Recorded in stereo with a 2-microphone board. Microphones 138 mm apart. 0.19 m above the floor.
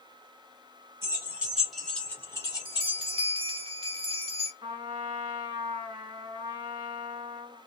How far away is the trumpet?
About 1.6 m.